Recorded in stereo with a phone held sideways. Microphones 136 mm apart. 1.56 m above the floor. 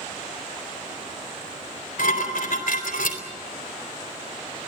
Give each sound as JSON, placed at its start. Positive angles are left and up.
{"t": 2.0, "sound": "dishes clattering", "side_deg": 75, "distance_m": 4.0}